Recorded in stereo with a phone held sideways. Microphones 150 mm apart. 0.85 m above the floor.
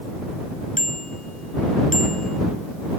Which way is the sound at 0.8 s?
60° left (ahead or behind).